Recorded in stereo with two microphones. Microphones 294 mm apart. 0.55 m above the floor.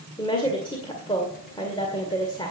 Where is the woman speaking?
15° left (ahead or behind), 1.9 m.